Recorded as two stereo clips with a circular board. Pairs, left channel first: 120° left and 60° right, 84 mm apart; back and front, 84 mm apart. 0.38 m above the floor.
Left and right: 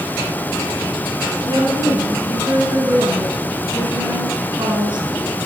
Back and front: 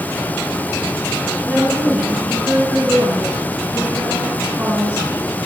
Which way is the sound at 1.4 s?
75° right.